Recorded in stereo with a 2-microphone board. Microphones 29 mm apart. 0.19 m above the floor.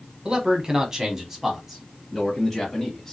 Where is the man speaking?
30° right (ahead or behind), 1.5 m; by 3.1 s 5° left (ahead or behind), 1.7 m.